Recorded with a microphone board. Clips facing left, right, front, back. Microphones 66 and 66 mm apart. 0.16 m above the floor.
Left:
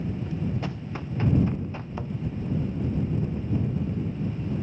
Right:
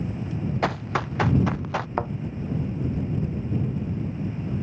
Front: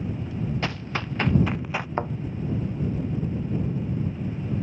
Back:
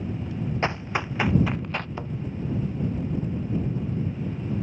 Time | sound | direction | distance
0.6 | running footsteps | 115° right | ?
2.0 | a thud | 50° right | ?